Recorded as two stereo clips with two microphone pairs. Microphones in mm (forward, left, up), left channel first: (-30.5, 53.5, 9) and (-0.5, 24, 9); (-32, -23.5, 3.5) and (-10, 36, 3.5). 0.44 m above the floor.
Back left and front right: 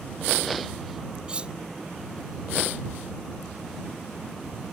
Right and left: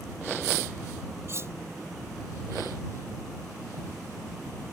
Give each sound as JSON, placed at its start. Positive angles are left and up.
{"t": 1.3, "sound": "cutlery clinking", "azimuth_deg": 20}